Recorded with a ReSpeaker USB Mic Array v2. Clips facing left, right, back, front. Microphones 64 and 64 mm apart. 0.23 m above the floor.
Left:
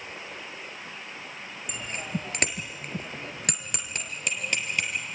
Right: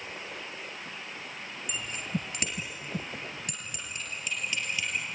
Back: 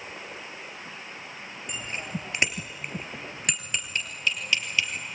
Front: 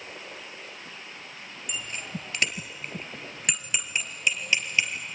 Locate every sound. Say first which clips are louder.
1.7 s a bicycle bell: left 1 dB, back 1 dB; 125° left, 3 m; by 4.9 s 60° left, 3.5 m